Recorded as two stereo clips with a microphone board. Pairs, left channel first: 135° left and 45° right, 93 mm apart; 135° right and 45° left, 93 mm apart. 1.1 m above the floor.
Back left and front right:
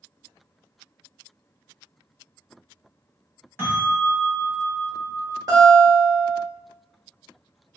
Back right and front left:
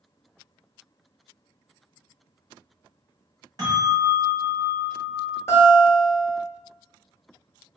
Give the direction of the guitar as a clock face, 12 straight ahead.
3 o'clock.